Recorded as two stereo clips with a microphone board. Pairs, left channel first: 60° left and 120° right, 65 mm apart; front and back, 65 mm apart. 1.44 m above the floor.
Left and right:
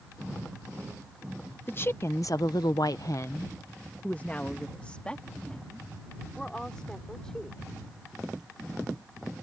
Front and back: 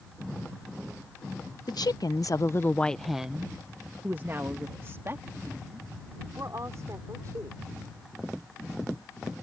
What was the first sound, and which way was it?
A woman speaking, 5° left.